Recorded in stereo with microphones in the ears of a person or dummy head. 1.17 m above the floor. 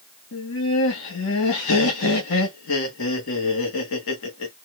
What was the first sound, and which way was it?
Laughter, 55° left (ahead or behind).